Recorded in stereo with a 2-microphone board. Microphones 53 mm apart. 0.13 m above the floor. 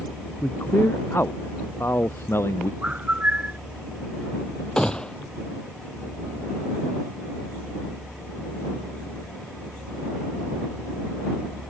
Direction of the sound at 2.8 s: 25° right (ahead or behind).